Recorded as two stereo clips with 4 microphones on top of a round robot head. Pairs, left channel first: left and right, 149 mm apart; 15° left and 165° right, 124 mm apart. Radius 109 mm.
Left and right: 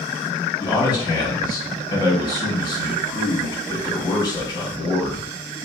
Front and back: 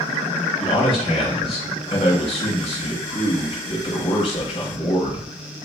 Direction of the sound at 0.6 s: 35° left.